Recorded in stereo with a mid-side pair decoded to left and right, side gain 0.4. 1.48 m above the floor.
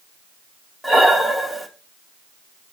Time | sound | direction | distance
0.8 | breathing | 5° right | 0.8 m